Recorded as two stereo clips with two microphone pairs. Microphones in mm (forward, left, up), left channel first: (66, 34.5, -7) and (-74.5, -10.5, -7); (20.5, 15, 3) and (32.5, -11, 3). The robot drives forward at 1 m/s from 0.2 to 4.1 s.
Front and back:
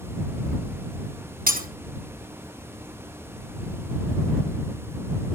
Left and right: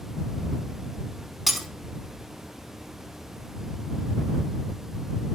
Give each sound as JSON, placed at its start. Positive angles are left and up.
{"t": 1.5, "sound": "breaking glass", "azimuth_deg": -155, "distance_m": 5.0}